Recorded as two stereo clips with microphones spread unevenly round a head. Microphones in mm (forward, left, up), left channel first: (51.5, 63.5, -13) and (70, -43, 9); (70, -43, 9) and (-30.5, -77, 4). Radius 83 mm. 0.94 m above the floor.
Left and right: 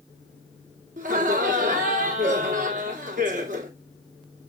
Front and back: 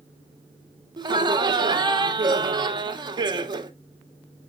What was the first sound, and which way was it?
Laughter, 115° right.